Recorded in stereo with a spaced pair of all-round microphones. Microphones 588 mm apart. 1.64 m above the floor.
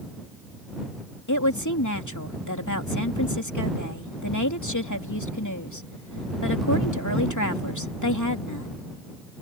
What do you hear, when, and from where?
1.3 s a woman speaking: 30° left (ahead or behind)